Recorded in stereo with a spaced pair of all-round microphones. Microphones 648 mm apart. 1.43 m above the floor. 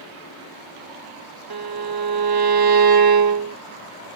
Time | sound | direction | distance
1.5 | a violin | 35° right (ahead or behind) | ?